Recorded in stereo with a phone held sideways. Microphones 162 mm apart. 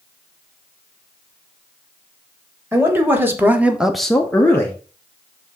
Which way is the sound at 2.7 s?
15° right (ahead or behind).